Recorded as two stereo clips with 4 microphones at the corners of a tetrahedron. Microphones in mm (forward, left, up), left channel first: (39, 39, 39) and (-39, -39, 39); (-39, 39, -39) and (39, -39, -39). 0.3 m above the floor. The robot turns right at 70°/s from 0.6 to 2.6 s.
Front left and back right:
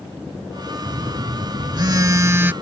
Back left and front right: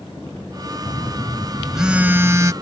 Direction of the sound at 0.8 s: 170° left.